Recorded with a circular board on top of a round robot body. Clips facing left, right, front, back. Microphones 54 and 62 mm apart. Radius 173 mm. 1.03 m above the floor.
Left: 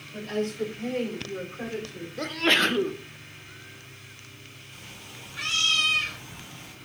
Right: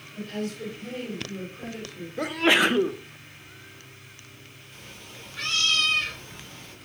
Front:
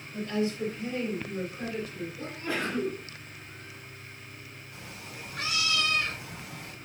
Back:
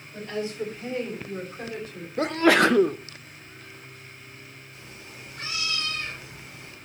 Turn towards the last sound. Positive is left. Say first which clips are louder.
# right 1 dB, front 3 dB
turn(degrees=5)